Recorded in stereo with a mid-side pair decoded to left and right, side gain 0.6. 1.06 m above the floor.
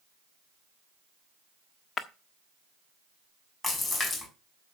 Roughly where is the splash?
Ahead.